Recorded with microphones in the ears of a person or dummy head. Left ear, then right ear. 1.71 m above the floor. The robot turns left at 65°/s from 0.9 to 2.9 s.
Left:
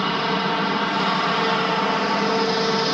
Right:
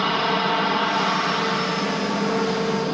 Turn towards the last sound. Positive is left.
turn(degrees=70)